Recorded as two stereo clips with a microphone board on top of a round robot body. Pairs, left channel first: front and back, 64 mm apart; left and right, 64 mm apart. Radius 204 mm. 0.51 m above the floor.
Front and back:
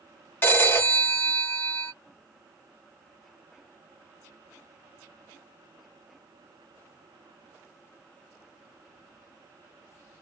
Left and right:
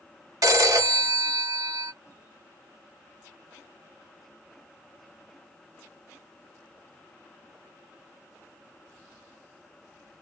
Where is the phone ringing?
60° right, 1.6 m.